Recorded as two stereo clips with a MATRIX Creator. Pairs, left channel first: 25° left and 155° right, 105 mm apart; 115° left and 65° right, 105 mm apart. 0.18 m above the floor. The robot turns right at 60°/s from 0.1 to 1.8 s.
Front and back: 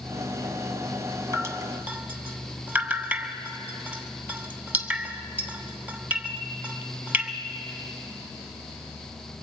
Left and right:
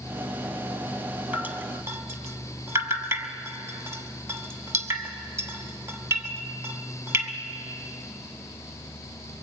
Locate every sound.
1.3 s dripping: 130° right, 1.5 m; by 7.3 s 100° right, 1.5 m